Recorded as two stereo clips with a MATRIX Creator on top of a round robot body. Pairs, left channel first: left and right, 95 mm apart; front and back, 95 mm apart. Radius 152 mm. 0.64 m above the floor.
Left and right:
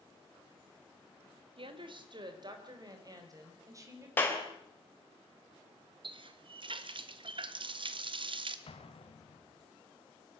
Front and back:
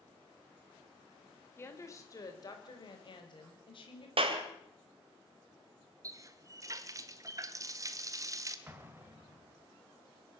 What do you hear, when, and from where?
1.6 s a woman speaking: 65° right, 3 m; by 4.1 s 30° right, 5 m
4.2 s a clap: 160° left, 3 m
6.0 s a running tap: 125° right, 1.3 m
8.7 s an explosion: 110° left, 2 m